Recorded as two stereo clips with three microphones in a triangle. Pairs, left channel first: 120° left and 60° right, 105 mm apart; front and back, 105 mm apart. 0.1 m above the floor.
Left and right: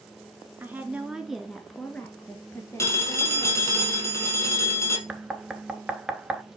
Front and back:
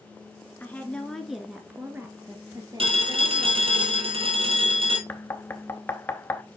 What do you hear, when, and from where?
0.6 s a woman speaking: 30° right, 1.1 m; by 3.8 s 160° left, 1.7 m
2.8 s a phone ringing: straight behind, 2 m
5.1 s knocking: straight ahead, 0.8 m